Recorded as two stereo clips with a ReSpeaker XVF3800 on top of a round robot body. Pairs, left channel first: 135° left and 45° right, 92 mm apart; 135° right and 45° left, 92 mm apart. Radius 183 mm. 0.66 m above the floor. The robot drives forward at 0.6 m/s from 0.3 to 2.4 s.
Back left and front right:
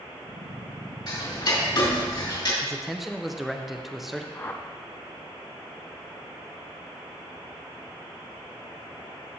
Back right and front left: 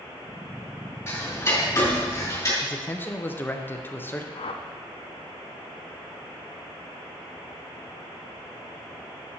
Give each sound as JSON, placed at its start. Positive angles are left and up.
{"t": 1.1, "sound": "ticking", "azimuth_deg": 165, "distance_m": 3.0}
{"t": 2.6, "sound": "a man speaking", "azimuth_deg": -130, "distance_m": 1.0}
{"t": 4.3, "sound": "a whoosh", "azimuth_deg": -155, "distance_m": 0.5}